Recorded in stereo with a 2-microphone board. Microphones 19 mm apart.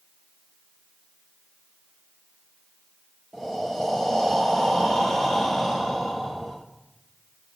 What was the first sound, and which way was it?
Breathing, 30° left (ahead or behind).